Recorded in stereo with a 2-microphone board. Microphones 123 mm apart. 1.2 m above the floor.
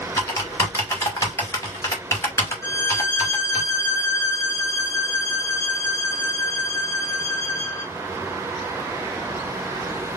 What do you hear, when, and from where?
0.2 s typing on a keyboard: 25° left (ahead or behind), 2 m
2.6 s a violin: 20° left (ahead or behind), 3 m